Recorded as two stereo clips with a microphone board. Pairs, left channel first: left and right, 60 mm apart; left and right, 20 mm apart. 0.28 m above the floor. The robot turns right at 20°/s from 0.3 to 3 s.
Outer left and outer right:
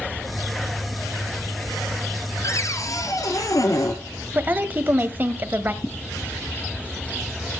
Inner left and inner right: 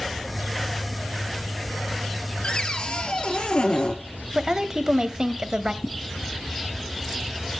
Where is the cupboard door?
55° left (ahead or behind), 1.7 m; by 4.0 s 65° left (ahead or behind), 1.7 m.